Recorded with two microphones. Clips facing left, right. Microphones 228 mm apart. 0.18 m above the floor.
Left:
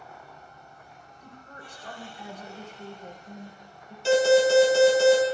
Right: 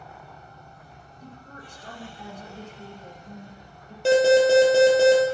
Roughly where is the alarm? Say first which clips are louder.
Right 3 dB; right.